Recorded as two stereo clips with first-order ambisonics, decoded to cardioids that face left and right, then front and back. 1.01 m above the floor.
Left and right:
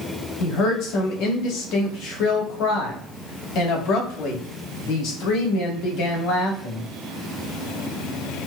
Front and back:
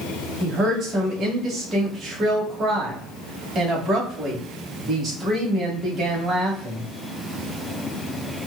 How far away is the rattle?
No rattle in this recording.